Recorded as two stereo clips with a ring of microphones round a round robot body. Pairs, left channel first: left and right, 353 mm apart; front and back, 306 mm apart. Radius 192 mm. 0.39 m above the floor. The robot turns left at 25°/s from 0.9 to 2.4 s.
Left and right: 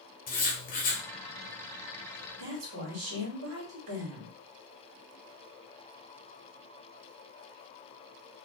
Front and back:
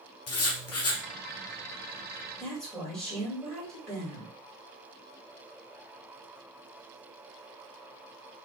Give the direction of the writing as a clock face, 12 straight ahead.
11 o'clock.